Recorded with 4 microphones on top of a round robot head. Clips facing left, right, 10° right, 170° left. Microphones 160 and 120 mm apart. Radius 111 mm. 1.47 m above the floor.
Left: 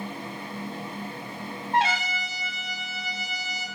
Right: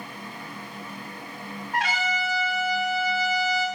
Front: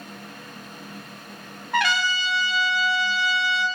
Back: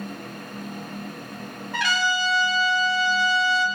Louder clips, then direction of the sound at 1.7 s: Left 2 dB, front 1 dB; 20° left.